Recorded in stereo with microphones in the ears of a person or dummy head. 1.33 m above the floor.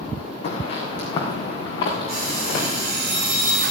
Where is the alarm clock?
50° right (ahead or behind), 7.5 m.